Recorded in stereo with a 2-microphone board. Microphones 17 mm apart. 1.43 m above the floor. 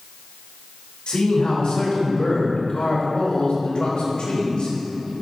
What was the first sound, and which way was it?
A man speaking, 75° left (ahead or behind).